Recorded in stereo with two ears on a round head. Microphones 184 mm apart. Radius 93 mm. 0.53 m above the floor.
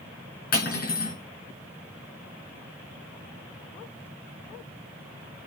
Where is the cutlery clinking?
45° left (ahead or behind), 4 m.